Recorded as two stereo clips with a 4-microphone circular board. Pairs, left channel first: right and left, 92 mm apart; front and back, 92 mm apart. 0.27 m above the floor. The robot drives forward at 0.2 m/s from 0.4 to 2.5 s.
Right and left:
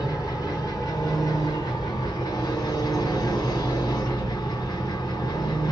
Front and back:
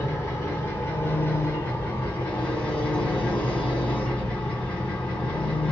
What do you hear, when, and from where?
0.0 s an engine running: 55° right, 1.9 m; by 5.7 s 70° right, 1.8 m